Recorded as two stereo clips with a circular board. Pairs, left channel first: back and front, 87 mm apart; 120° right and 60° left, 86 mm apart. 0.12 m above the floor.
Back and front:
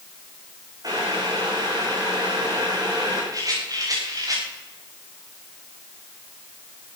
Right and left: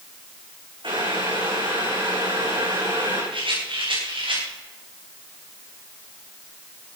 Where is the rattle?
45° left, 7 m.